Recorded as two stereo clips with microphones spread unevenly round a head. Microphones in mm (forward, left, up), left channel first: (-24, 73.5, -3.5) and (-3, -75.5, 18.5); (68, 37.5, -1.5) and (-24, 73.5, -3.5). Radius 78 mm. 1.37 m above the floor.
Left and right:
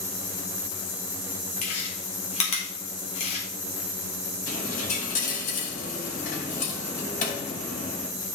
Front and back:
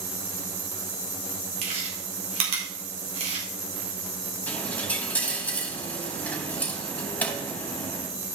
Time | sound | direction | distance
1.6 | chewing | 145° left | 3.5 m
4.5 | a dropped coin | 50° left | 3.5 m